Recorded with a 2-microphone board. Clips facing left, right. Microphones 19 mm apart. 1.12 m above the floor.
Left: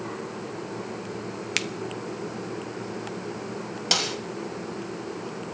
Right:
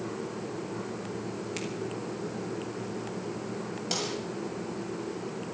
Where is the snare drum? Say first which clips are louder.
Left 9 dB; 50° left (ahead or behind), 2 m.